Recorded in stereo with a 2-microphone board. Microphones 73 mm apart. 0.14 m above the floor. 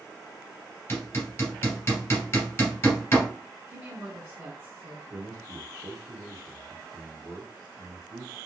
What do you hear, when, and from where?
0.9 s hammering: 30° left (ahead or behind), 1.6 m
3.7 s a woman speaking: 25° right (ahead or behind), 1.3 m
5.1 s a man speaking: 35° right (ahead or behind), 1.9 m